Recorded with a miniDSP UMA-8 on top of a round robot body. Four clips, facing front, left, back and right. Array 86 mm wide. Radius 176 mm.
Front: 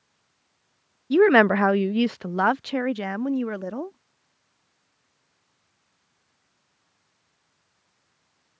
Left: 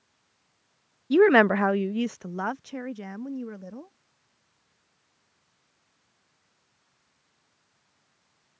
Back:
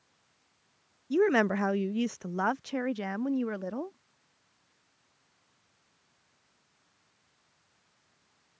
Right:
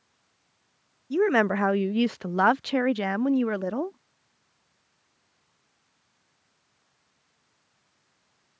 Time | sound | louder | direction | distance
1.1 | a woman speaking | left 5 dB, front 9 dB | 40° left | ?